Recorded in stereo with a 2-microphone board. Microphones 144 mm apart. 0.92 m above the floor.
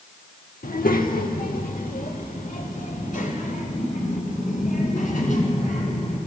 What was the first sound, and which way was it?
A child speaking, 75° left (ahead or behind).